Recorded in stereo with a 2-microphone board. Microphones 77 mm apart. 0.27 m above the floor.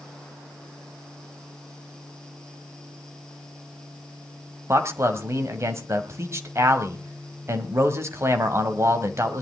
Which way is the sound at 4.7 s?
40° right (ahead or behind).